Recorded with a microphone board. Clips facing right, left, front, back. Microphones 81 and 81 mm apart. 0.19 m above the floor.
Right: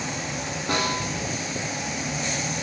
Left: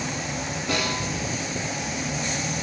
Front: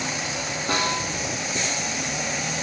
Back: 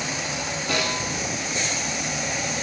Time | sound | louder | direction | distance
0.7 | a snare drum | right 2 dB, front 2 dB | 45° right | 2.5 m